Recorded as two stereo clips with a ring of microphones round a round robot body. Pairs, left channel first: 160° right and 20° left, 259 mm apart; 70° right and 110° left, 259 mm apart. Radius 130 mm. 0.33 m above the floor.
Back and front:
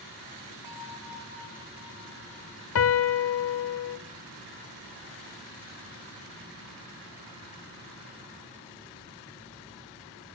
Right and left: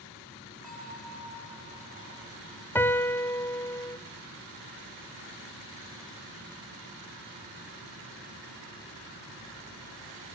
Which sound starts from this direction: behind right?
A piano, at 2.8 s.